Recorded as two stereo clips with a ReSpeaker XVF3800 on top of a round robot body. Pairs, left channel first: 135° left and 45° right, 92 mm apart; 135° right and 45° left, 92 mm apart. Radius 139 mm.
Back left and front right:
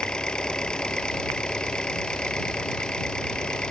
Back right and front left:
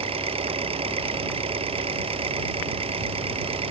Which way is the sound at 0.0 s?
55° left.